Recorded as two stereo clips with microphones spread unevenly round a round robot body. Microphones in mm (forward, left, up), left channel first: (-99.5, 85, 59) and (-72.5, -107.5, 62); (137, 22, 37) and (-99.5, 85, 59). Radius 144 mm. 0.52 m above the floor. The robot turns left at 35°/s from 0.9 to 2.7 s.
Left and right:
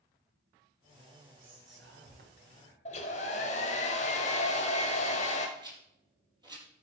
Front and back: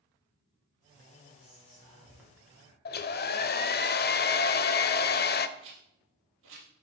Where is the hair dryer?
35° left, 0.7 m.